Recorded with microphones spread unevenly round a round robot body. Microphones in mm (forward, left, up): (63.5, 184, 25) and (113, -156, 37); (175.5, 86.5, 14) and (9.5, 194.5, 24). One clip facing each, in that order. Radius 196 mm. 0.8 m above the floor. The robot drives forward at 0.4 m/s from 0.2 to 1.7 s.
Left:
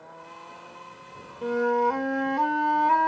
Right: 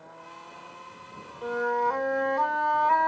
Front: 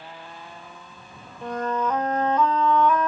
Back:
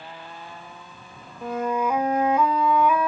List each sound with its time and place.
1.4 s a flute: 60° left, 1.2 m; by 3.1 s 65° left, 1.2 m